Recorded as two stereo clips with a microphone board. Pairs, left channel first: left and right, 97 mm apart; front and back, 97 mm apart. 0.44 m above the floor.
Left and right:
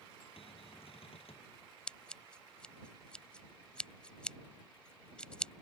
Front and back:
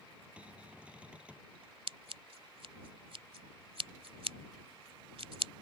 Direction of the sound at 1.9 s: 170° left.